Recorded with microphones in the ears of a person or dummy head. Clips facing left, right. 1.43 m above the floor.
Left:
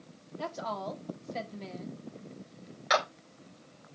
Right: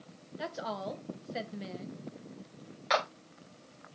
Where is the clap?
Centre (ahead or behind), 4.5 m.